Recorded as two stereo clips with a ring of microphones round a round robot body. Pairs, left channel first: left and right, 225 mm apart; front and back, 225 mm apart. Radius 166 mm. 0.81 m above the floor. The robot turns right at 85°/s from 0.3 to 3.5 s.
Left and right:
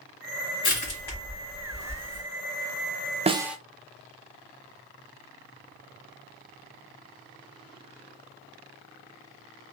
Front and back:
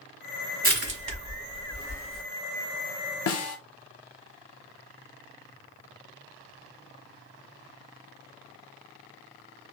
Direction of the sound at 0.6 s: 135° left.